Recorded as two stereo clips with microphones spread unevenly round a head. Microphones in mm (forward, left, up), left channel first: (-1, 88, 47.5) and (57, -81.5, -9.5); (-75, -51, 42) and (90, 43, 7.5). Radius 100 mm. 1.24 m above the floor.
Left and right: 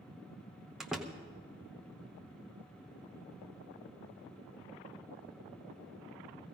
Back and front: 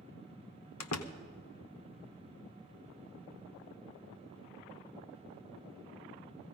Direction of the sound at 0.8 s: 160° right.